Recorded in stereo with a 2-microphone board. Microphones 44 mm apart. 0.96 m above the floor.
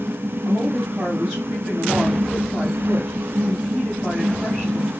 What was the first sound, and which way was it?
A woman speaking, 15° right (ahead or behind).